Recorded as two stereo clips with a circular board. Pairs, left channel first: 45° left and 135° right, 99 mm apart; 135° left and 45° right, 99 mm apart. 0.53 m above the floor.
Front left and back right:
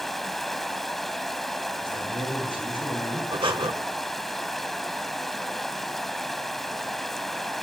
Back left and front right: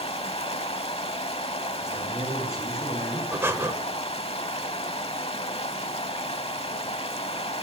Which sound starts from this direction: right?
Breathing, at 3.3 s.